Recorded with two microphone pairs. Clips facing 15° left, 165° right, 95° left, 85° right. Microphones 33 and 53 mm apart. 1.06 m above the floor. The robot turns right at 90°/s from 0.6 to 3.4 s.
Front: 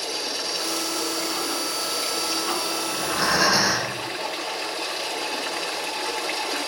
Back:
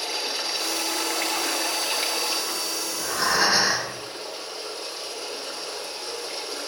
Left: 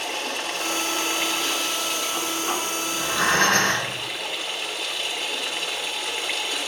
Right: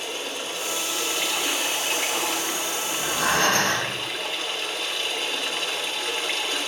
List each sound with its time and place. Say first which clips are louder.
0.0 s running water: even, left 3 dB; 120° left, 2.5 m; by 6.7 s 10° left, 2.5 m
2.9 s breathing: front 1 dB, left 2 dB; 85° left, 5.5 m; by 4.0 s 130° left, 5.5 m